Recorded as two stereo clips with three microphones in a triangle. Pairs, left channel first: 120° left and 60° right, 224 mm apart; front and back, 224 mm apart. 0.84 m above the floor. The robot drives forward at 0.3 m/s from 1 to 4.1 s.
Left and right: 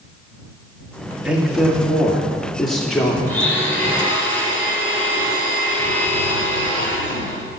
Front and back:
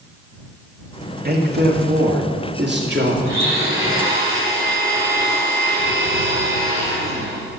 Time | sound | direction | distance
1.2 | a man speaking | 145° right | 2.0 m
3.2 | a blender | 160° right | 3.5 m